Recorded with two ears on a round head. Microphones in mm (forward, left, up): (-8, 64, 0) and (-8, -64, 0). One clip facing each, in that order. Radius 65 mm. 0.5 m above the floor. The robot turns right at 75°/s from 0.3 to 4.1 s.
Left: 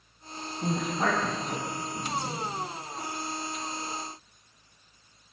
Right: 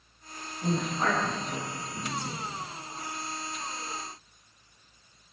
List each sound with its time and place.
0.6 s a woman speaking: 65° left (ahead or behind), 4 m; by 2.5 s 25° right (ahead or behind), 4 m